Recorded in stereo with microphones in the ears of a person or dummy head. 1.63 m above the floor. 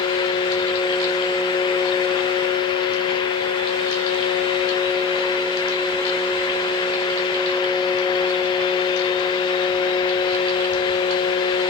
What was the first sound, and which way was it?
Only background noise.